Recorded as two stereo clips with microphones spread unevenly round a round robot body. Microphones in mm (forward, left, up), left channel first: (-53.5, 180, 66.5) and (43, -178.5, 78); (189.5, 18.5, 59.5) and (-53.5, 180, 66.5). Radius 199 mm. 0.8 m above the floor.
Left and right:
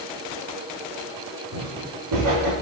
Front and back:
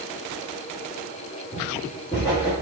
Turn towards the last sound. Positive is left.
turn(degrees=-115)